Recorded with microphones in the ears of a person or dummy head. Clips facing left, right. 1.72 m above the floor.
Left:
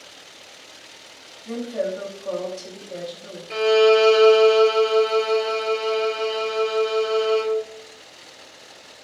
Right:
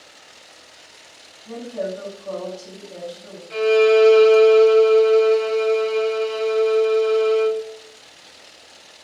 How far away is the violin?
About 0.6 m.